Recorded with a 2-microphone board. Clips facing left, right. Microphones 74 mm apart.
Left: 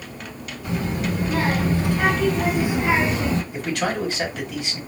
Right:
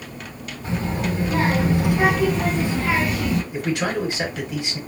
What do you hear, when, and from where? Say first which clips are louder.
0.6 s a child speaking: even; 25° right (ahead or behind), 1.7 m; by 3.4 s 35° left (ahead or behind), 0.8 m
3.5 s a man speaking: right 1 dB; 20° right (ahead or behind), 2 m